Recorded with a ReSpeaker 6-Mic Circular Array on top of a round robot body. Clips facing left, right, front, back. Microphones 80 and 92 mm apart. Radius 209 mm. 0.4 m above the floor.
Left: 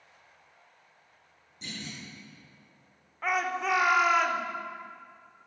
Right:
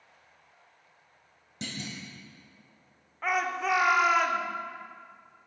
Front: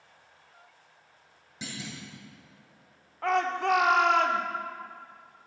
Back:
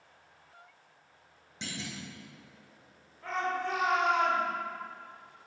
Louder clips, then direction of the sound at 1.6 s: Right 3 dB, front 1 dB; 85° right.